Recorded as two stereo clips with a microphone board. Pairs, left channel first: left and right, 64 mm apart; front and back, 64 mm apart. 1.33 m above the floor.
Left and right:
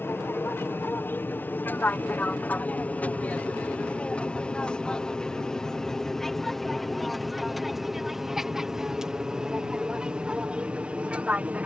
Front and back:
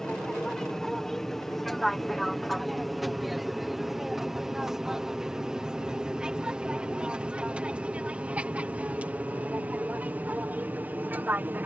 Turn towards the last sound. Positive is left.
turn(degrees=-145)